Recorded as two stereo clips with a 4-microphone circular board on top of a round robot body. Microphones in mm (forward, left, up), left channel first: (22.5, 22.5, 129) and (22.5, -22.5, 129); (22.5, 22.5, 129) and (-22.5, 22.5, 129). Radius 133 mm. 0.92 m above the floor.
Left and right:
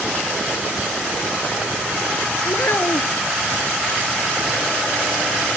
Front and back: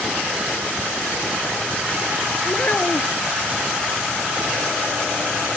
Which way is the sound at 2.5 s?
55° left.